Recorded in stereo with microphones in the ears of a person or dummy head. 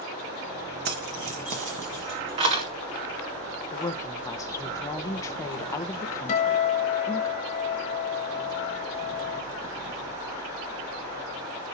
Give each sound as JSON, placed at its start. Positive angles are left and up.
{"t": 0.8, "sound": "keys jangling", "side_deg": -55, "distance_m": 1.8}
{"t": 3.7, "sound": "a woman speaking", "side_deg": 15, "distance_m": 1.1}
{"t": 6.3, "sound": "a guitar", "side_deg": 35, "distance_m": 1.9}